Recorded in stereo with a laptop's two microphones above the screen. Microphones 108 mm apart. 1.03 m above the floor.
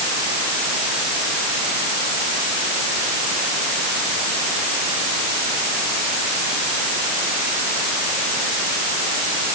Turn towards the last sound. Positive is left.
No sound to turn to.